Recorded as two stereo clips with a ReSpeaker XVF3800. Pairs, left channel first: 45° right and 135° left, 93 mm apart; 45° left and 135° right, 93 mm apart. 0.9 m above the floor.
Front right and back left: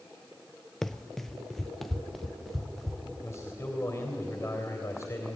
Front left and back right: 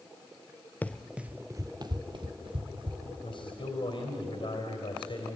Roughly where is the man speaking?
Ahead.